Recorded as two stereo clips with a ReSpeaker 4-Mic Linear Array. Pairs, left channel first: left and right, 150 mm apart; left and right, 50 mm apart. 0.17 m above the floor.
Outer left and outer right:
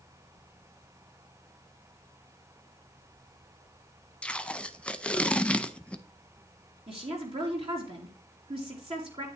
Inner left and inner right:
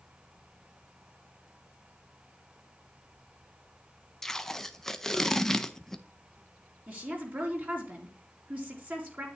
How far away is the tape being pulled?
About 0.6 m.